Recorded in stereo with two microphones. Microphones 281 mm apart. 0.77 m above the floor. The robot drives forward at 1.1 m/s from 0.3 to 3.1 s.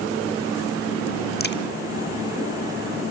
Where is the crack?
35° left (ahead or behind), 1.0 m; by 1.6 s 40° left (ahead or behind), 0.8 m.